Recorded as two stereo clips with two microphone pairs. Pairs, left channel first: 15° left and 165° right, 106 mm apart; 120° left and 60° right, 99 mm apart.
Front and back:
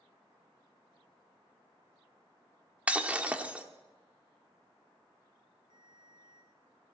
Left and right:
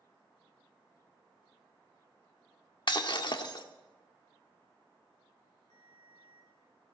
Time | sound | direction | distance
2.9 | breaking glass | 125° left | 1.1 m
5.7 | a ringtone | 155° left | 3 m